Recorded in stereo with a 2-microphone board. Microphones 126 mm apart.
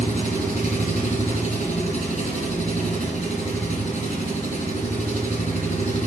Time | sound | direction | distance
0.0 | an engine running | 75° left (ahead or behind) | 3 m